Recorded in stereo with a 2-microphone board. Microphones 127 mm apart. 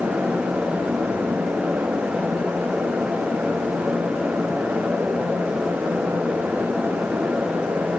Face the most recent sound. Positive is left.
No sound to turn to.